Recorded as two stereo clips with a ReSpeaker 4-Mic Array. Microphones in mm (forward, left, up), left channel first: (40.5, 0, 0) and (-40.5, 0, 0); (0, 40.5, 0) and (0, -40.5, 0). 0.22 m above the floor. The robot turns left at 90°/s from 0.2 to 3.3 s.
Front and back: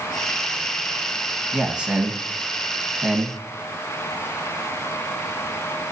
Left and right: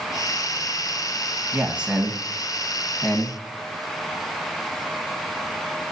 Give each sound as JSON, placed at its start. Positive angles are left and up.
{"t": 1.5, "sound": "a man speaking", "azimuth_deg": -110, "distance_m": 1.3}